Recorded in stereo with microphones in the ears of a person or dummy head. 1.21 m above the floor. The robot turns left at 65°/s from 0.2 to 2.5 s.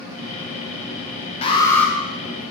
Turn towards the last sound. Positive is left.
turn(degrees=-35)